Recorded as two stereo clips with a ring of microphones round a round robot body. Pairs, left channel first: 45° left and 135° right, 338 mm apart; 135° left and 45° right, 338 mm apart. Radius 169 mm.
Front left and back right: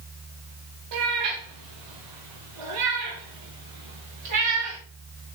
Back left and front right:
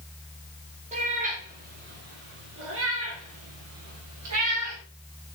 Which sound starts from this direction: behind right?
A cat meowing, at 0.9 s.